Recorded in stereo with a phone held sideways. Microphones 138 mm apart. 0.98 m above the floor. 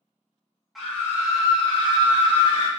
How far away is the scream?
About 0.7 m.